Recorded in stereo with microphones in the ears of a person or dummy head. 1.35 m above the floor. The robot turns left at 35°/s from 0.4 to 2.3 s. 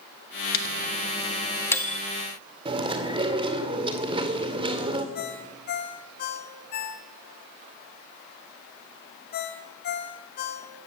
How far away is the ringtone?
About 2.0 m.